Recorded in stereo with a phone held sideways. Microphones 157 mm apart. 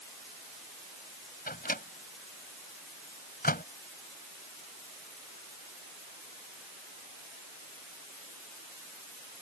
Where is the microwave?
70° left (ahead or behind).